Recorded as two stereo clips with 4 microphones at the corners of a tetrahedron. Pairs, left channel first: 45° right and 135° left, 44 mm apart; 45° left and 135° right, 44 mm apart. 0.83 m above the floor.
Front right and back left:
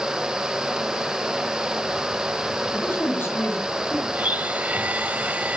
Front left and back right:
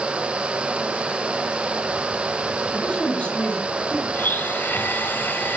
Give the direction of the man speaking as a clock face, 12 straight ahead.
12 o'clock.